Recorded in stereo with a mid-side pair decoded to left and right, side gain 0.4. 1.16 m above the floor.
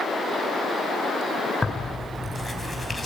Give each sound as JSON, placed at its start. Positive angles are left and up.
{"t": 1.6, "sound": "tearing paper", "azimuth_deg": 20, "distance_m": 6.5}